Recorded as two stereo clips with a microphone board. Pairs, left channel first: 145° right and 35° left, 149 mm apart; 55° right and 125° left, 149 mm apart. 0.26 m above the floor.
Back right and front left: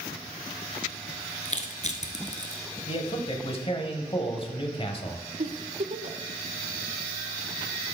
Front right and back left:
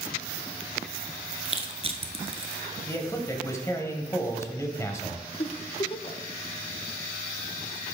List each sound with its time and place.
1.4 s crushing: 175° left, 0.9 m
2.9 s a man speaking: 115° right, 1.3 m
5.4 s a giggle: 5° right, 0.5 m